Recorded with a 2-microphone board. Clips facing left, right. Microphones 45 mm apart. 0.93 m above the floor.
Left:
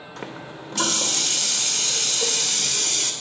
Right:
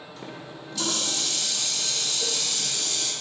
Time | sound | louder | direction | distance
0.2 | a running tap | left 5 dB | 65° left (ahead or behind) | 2.0 m